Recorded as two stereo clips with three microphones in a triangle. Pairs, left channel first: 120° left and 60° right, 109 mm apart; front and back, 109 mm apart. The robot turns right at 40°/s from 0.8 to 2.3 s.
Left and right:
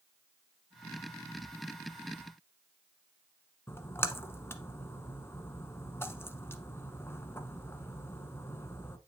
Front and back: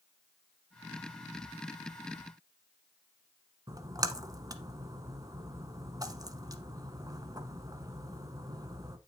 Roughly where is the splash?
Behind.